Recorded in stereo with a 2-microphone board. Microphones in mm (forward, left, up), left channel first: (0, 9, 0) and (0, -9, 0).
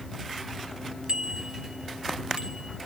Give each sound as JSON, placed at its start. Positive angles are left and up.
{"t": 1.1, "sound": "a bicycle bell", "side_deg": -50}